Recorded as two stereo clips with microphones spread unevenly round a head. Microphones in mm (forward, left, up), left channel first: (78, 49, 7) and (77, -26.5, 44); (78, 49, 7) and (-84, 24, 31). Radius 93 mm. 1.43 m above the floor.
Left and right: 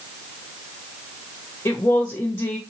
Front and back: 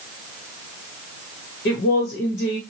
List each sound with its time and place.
1.6 s a woman speaking: 35° left, 1.5 m